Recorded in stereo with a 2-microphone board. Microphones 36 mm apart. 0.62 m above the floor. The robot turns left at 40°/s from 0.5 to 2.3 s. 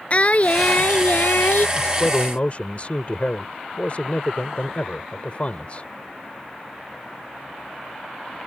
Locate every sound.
0.1 s singing: 135° left; by 1.7 s 90° left
1.8 s a man speaking: 55° left (ahead or behind); by 5.9 s 40° left (ahead or behind)